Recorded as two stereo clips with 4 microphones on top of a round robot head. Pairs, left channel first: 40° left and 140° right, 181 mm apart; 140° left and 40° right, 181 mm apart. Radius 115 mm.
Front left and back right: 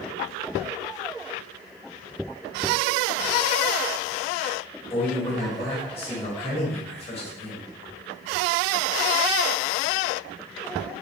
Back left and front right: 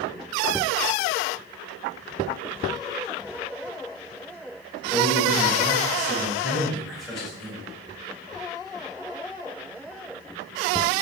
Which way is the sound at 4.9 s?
55° left.